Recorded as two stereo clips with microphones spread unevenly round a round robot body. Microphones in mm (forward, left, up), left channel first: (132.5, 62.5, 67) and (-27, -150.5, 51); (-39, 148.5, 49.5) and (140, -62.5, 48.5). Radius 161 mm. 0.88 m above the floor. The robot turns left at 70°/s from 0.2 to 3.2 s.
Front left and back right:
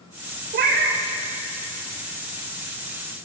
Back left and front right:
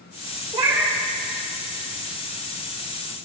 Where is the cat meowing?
110° right, 0.6 m; by 1.0 s 145° right, 0.6 m.